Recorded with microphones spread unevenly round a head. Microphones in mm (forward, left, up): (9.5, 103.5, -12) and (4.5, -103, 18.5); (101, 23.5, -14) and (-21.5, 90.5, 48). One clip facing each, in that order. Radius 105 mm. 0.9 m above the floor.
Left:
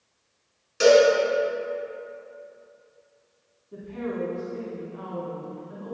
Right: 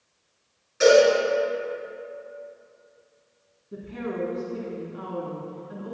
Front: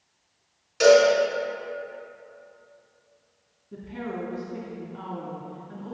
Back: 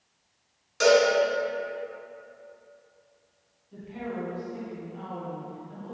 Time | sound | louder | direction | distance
0.8 | a cowbell | even, front 4 dB | 50° left | 4 m
3.7 | a woman speaking | even, front 1 dB | 30° right | 2 m